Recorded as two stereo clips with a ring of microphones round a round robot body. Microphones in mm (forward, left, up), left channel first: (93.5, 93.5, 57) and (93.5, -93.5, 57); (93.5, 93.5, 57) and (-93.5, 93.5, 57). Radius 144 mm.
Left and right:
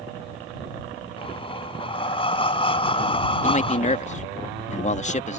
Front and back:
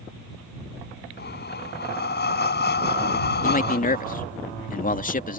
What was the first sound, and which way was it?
Breathing, 30° left.